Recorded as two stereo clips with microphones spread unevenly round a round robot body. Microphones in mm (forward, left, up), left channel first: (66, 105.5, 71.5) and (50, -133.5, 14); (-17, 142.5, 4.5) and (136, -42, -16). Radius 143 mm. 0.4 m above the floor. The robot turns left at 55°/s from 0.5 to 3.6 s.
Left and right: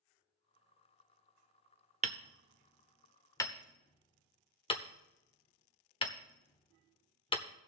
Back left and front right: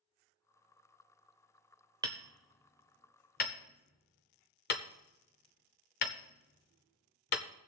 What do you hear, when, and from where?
2.0 s hammering: 110° right, 0.7 m; by 7.5 s 160° left, 0.7 m